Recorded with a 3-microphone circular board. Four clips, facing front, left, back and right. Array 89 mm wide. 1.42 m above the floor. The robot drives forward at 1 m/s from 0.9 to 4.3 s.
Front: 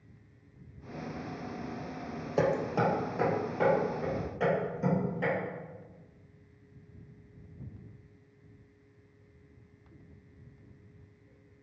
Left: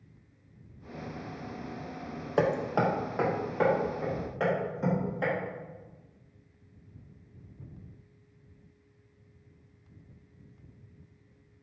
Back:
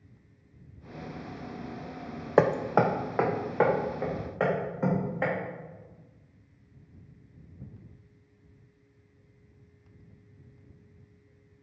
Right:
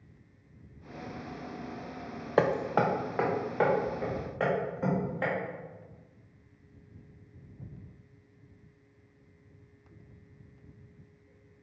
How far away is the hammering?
About 0.6 m.